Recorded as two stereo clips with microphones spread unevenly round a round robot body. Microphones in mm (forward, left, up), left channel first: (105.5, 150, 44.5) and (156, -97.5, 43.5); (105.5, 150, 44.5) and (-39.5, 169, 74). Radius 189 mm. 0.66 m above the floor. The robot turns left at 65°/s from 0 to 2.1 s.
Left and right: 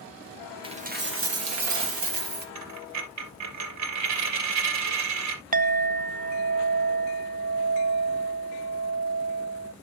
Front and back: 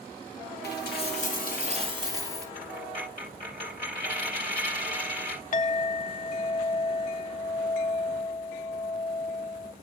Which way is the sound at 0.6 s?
5° right.